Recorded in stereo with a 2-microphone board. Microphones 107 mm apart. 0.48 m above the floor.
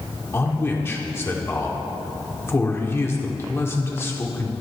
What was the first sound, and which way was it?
A man speaking, 25° left (ahead or behind).